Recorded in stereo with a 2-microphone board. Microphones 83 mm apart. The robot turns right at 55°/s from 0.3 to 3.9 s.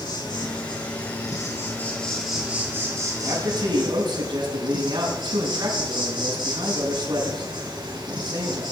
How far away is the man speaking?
About 4.5 m.